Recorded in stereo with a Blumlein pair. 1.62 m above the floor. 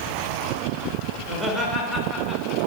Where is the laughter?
15° right, 2.0 m; by 2.6 s 15° left, 1.4 m.